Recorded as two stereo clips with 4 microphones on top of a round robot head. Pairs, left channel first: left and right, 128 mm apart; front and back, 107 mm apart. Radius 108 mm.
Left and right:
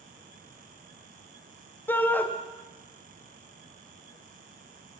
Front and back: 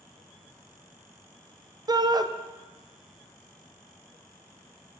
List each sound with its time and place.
1.9 s a shout: 155° left, 0.6 m